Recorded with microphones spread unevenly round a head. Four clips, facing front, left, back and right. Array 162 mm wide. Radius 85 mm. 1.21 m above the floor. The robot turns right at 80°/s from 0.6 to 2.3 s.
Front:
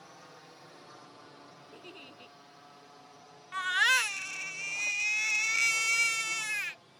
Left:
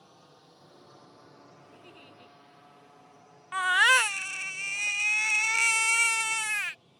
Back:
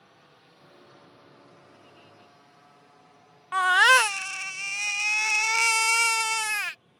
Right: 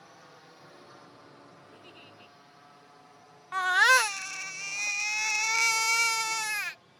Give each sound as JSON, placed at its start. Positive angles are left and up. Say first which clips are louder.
{"t": 0.0, "sound": "a drone", "louder": "right 4 dB, front 5 dB", "azimuth_deg": -25}
{"t": 1.7, "sound": "a giggle", "louder": "even, front 3 dB", "azimuth_deg": -5}
{"t": 3.5, "sound": "a baby crying", "louder": "right 1 dB, back 10 dB", "azimuth_deg": -170}